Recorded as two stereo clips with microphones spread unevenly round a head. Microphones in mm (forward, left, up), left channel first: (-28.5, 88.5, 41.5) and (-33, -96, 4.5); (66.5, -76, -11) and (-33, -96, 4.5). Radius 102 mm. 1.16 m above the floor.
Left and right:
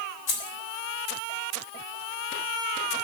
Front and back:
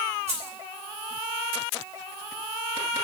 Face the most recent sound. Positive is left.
turn(degrees=115)